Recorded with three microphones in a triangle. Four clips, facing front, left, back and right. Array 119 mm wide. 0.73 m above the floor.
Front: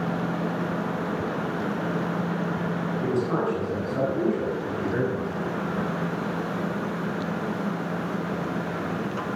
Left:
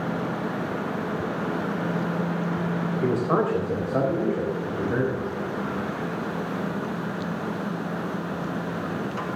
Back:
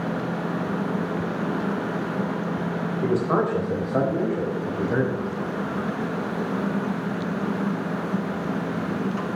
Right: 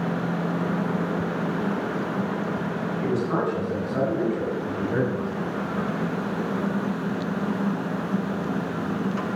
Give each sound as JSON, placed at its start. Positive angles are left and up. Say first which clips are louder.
{"t": 3.0, "sound": "a man speaking", "louder": "left 2 dB, back 4 dB", "azimuth_deg": 130, "distance_m": 3.0}